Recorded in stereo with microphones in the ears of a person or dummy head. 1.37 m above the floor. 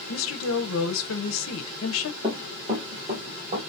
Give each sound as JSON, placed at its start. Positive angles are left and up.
{"t": 0.1, "sound": "a woman speaking", "side_deg": 75, "distance_m": 0.9}
{"t": 2.2, "sound": "running footsteps", "side_deg": -25, "distance_m": 1.8}